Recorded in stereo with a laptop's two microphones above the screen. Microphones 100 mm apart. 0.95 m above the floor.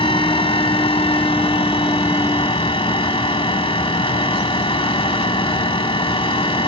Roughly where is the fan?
Left.